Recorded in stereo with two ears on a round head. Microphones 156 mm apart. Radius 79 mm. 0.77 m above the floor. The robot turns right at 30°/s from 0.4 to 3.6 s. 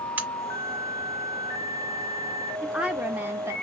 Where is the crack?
10° right (ahead or behind), 1.4 m.